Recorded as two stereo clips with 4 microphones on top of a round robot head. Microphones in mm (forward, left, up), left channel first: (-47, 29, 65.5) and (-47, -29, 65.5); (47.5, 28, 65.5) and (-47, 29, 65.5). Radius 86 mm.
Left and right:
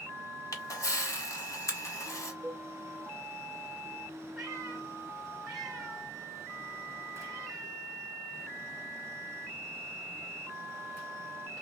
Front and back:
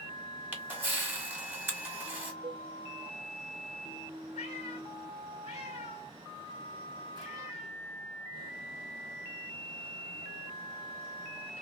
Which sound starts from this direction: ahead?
A cat meowing, at 4.3 s.